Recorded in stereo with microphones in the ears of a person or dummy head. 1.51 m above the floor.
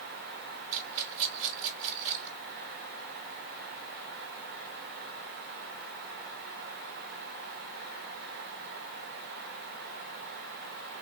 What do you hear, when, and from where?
0.7 s a rattle: 40° right (ahead or behind), 2 m